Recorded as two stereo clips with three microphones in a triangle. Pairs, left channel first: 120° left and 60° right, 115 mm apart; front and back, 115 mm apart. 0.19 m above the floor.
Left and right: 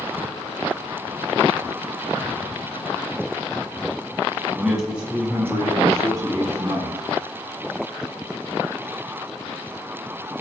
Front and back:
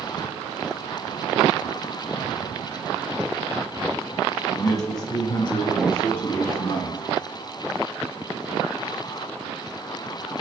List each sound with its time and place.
4.5 s a man speaking: 35° left, 1.3 m; by 7.0 s 20° right, 2 m